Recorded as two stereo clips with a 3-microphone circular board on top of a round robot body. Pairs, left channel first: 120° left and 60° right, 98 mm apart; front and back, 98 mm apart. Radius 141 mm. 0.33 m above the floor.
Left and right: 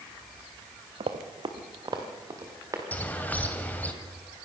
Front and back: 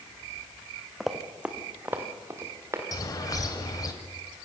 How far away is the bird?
About 2 m.